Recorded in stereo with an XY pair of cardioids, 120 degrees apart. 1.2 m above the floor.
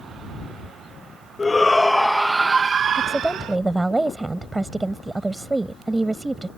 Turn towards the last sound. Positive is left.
turn(degrees=-15)